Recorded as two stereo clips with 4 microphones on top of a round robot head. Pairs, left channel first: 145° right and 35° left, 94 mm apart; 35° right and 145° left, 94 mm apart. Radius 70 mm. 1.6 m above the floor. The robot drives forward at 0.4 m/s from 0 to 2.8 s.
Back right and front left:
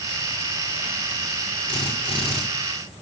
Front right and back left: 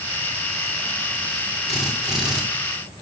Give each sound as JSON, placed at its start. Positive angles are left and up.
{"t": 1.7, "sound": "a drill", "azimuth_deg": -125, "distance_m": 8.0}